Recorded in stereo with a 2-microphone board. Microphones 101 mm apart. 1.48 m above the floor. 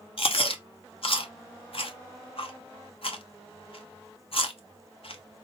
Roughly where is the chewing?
Left.